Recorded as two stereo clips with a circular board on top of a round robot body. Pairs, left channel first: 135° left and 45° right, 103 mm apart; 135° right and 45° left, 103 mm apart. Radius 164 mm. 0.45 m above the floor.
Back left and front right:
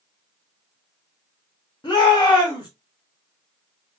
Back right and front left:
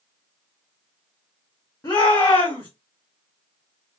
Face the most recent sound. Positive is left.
turn(degrees=175)